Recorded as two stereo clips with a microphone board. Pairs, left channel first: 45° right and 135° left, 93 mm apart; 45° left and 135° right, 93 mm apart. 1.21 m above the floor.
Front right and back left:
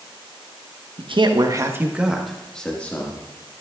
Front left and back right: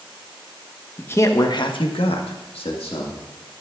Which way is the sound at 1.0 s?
115° left.